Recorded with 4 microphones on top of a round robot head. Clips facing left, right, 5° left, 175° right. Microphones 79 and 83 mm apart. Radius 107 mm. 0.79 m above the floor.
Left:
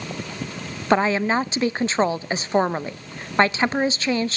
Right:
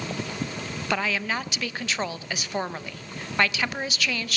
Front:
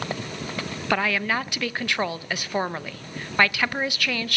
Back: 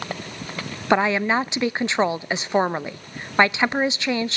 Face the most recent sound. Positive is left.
turn(degrees=125)